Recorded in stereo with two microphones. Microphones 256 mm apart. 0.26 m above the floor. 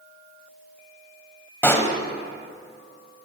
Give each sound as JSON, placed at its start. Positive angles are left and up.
{"t": 1.6, "sound": "a pop", "side_deg": 10, "distance_m": 1.1}